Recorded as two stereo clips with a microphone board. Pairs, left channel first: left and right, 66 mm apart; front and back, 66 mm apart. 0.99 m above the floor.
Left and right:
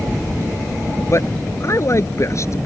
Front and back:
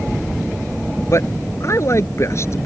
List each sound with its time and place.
1.1 s a man speaking: 45° left